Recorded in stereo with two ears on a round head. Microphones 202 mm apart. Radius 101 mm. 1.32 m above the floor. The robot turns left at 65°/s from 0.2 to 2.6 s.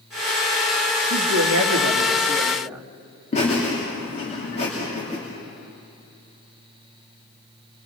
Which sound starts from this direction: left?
Laughter, at 3.3 s.